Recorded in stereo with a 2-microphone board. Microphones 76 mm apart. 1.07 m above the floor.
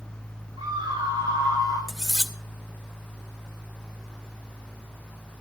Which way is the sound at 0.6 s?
85° right.